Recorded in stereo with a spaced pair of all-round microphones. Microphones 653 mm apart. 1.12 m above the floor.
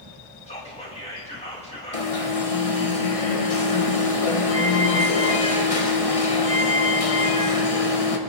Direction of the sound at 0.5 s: 10° left (ahead or behind).